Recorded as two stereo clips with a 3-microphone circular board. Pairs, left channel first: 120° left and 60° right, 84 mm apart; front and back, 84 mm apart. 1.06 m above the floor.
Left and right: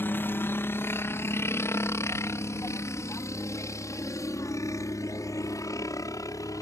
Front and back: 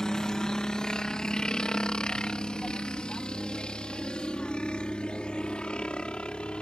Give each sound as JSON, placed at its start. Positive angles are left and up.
{"t": 0.0, "sound": "a helicopter", "azimuth_deg": 75}